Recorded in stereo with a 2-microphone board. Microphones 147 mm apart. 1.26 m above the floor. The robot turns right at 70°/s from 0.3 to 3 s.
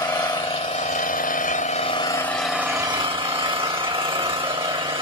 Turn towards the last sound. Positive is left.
turn(degrees=-140)